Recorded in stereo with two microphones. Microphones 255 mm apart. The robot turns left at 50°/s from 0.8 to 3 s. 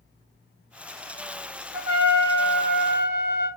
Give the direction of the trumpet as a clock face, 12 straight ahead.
5 o'clock.